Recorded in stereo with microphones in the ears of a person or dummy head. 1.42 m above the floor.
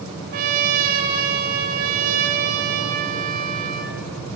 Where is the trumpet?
50° right (ahead or behind), 1.0 m.